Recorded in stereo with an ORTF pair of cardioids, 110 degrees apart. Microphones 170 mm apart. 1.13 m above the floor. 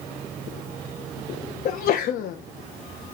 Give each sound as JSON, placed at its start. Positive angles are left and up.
{"t": 1.6, "sound": "a sneeze", "azimuth_deg": 60, "distance_m": 0.6}